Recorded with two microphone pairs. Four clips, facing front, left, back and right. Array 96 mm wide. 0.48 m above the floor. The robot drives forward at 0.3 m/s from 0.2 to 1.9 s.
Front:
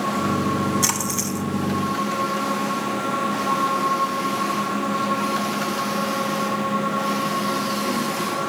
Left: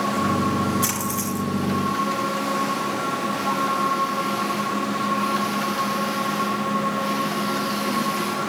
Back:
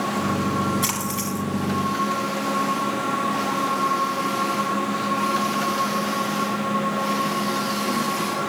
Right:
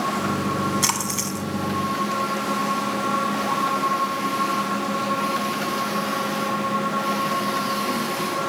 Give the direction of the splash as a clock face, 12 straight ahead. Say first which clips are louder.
Left 1 dB, front 1 dB; 3 o'clock.